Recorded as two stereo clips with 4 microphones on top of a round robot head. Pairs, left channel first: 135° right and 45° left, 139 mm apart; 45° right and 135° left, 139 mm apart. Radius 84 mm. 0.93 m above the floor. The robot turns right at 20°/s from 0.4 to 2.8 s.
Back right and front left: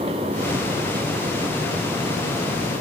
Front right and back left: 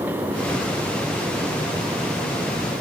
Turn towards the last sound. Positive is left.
No sound to turn to.